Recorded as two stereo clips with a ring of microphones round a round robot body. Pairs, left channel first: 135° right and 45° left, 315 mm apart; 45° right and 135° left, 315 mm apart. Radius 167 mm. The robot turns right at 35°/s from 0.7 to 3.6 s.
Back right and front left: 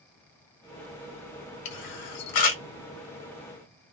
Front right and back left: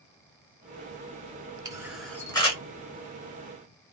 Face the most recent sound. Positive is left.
turn(degrees=-80)